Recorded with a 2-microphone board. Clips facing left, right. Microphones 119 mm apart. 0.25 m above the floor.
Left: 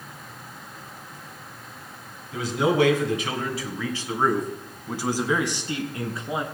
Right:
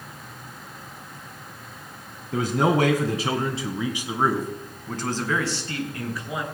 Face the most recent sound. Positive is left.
turn(degrees=30)  # may be behind; listen again after turning